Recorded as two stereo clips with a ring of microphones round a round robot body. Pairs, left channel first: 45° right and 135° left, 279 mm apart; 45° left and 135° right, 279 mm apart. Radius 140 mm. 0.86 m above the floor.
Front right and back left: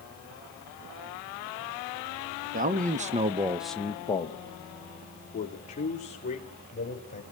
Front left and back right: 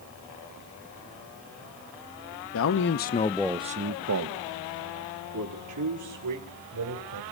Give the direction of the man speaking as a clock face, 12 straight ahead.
9 o'clock.